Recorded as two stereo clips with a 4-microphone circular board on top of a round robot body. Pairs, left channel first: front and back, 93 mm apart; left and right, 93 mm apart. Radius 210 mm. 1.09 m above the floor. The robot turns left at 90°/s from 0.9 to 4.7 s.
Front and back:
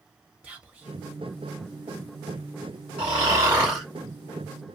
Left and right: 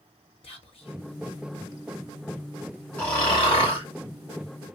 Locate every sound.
0.4 s whispering: 100° left, 0.7 m; by 1.0 s 90° left, 0.7 m
3.0 s snoring: 165° left, 0.9 m; by 3.9 s 85° left, 0.9 m